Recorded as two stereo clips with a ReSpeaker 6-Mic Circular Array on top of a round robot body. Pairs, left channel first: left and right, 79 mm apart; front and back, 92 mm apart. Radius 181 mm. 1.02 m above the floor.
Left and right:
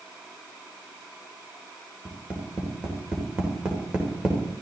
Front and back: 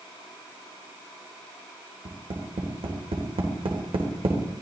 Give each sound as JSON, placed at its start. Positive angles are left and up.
{"t": 2.0, "sound": "tapping", "azimuth_deg": -170, "distance_m": 3.5}